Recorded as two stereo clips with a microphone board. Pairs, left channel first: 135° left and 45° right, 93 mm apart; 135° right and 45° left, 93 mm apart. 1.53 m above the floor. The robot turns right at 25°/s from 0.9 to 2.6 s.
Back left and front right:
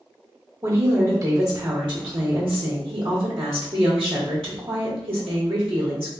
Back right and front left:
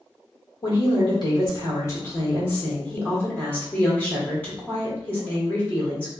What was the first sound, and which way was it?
A woman speaking, 105° right.